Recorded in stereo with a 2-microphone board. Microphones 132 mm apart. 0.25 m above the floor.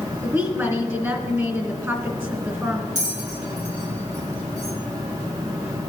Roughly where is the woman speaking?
Right.